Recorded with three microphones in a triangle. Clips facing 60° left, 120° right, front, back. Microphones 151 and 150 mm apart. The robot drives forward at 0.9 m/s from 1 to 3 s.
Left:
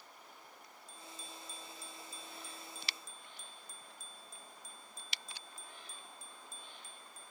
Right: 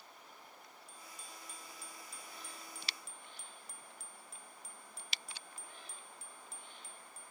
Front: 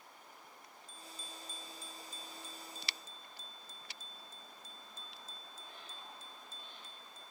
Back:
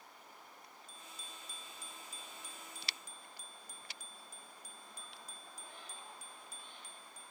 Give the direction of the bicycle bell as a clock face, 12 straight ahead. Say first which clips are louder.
Left 4 dB, front 4 dB; 3 o'clock.